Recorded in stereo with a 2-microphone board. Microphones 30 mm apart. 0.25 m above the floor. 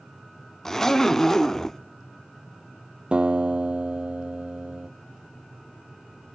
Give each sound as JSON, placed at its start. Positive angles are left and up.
{"t": 0.7, "sound": "a zipper", "side_deg": 15, "distance_m": 0.7}
{"t": 3.1, "sound": "a guitar", "side_deg": -35, "distance_m": 1.3}